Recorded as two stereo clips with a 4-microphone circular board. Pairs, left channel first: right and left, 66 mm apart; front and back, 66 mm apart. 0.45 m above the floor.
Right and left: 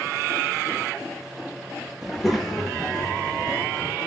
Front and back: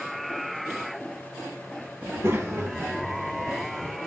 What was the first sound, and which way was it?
A child speaking, 165° left.